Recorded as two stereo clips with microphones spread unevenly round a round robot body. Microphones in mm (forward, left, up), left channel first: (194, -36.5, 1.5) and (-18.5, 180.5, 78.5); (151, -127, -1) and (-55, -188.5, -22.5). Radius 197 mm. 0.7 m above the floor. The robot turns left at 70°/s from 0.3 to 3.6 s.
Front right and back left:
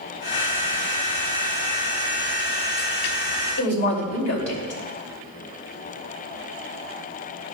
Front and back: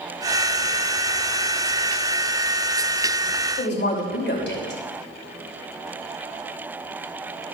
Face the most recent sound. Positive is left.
turn(degrees=-15)